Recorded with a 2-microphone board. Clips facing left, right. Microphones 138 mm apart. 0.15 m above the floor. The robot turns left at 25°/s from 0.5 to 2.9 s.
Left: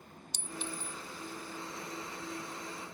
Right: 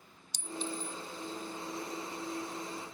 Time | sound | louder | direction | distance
0.3 | a clink | right 4 dB | 65° left (ahead or behind) | ?